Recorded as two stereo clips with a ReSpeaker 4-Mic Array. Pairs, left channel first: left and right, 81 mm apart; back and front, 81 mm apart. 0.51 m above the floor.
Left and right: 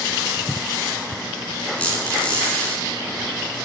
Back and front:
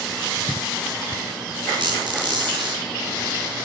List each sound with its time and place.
1.8 s a squeak: 15° left, 3.5 m